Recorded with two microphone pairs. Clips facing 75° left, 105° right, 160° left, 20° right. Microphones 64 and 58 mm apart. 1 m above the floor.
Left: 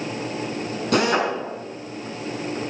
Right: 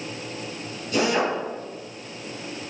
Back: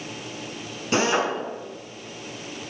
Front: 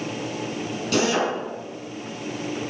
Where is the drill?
95° left, 6 m.